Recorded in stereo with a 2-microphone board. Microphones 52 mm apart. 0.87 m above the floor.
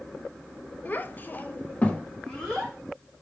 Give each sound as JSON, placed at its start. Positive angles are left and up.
{"t": 0.8, "sound": "a child speaking", "side_deg": 35, "distance_m": 0.6}